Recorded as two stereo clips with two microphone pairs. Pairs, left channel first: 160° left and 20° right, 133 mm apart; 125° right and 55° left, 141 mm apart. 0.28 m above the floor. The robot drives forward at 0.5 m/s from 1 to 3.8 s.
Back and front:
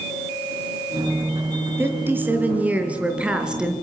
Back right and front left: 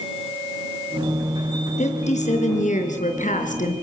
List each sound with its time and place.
1.8 s a woman speaking: 90° right, 4.5 m; by 3.7 s 105° right, 4.5 m